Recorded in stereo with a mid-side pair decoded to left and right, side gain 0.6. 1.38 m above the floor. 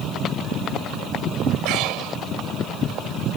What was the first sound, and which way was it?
Breathing, 70° right.